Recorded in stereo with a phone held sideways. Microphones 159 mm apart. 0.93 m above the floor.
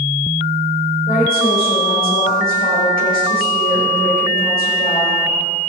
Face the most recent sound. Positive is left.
turn(degrees=70)  # may be behind; listen again after turning